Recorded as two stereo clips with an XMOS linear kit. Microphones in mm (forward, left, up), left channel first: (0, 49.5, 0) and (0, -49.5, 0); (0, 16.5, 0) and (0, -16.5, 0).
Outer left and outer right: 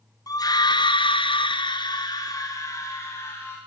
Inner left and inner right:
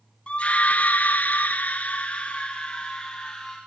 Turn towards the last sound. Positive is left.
turn(degrees=25)  # may be behind; listen again after turning